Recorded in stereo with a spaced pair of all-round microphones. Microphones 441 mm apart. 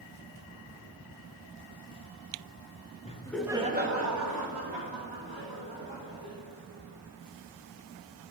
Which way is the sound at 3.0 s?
15° left (ahead or behind).